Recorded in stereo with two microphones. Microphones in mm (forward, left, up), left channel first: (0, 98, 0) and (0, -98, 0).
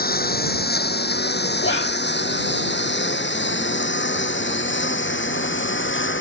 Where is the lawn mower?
50° left (ahead or behind); by 6.2 s 80° left.